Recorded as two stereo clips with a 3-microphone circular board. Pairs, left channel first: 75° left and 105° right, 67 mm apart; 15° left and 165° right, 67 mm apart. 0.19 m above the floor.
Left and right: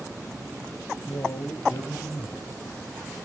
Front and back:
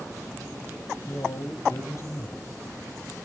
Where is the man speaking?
60° left, 4.5 m.